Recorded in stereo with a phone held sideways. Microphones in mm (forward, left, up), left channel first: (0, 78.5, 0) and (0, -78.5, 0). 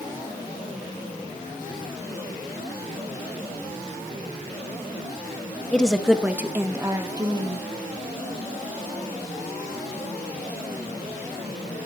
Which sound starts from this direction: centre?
A woman speaking, at 5.7 s.